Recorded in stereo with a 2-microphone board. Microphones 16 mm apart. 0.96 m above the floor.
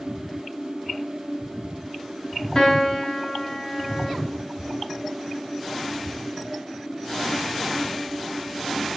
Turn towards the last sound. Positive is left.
turn(degrees=40)  # may be behind; listen again after turning